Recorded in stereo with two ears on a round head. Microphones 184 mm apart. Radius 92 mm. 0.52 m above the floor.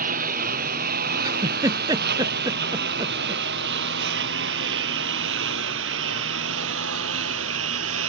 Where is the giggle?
20° right (ahead or behind).